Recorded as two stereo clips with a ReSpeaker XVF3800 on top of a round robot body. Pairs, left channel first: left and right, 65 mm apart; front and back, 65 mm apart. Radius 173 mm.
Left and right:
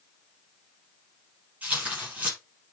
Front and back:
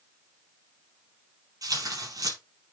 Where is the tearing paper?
155° right, 6 m.